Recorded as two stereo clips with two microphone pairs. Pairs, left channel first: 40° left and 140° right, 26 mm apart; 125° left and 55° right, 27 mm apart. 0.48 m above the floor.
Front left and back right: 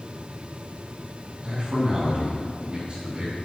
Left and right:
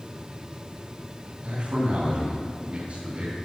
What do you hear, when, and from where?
1.4 s a man speaking: 85° right, 4 m